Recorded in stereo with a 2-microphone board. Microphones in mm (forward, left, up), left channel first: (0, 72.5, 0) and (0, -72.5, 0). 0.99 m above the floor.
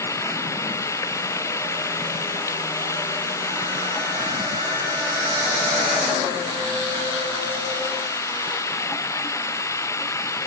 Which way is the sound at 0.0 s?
20° left (ahead or behind).